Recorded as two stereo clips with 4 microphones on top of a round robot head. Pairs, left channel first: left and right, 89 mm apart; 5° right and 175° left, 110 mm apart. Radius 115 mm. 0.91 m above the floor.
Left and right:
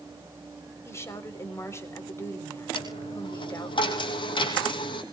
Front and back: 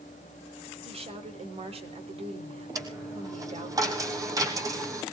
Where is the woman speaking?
150° left, 3.5 m.